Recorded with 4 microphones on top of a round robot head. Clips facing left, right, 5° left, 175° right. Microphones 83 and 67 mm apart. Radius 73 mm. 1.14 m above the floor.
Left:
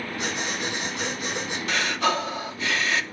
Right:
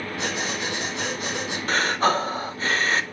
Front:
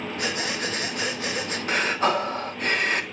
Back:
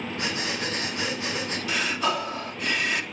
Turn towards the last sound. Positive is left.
turn(degrees=-40)